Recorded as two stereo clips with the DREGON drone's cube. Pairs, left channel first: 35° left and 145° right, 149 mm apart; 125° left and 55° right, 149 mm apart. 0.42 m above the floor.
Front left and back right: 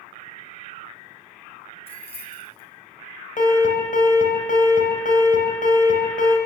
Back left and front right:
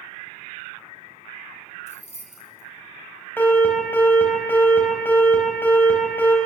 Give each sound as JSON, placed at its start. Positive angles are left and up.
{"t": 1.9, "sound": "keys jangling", "azimuth_deg": 85, "distance_m": 4.0}
{"t": 3.4, "sound": "an alarm", "azimuth_deg": 50, "distance_m": 4.5}